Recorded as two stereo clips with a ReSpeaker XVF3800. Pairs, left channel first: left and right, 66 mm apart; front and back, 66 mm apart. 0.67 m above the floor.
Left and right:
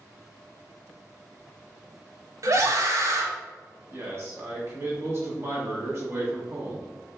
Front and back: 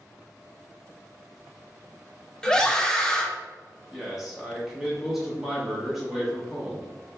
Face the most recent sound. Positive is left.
turn(degrees=-100)